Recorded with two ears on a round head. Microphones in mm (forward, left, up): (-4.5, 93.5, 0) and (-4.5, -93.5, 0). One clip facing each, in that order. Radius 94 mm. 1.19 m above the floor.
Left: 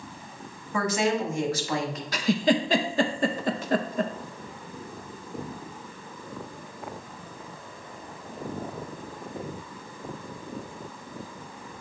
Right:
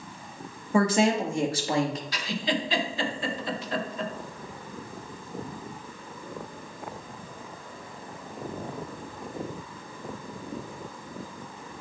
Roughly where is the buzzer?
No buzzer in this recording.